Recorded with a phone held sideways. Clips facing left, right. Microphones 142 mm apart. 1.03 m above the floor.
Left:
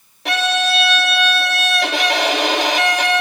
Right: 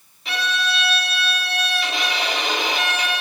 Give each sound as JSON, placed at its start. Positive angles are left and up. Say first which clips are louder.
{"t": 0.2, "sound": "a violin", "louder": "left 7 dB", "side_deg": 75, "distance_m": 3.0}